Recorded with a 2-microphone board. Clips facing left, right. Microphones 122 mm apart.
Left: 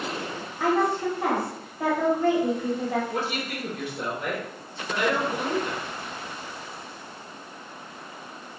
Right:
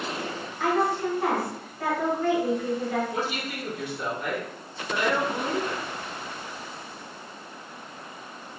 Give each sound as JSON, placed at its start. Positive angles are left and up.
{"t": 0.6, "sound": "a woman speaking", "side_deg": 25, "distance_m": 2.0}
{"t": 3.1, "sound": "a woman speaking", "side_deg": 50, "distance_m": 2.0}